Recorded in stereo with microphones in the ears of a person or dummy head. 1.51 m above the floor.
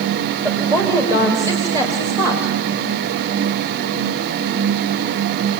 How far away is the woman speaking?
About 3.5 m.